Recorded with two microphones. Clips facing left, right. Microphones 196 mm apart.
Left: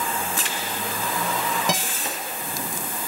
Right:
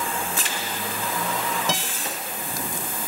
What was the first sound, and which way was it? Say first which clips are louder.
A guitar: left 2 dB; 15° left (ahead or behind).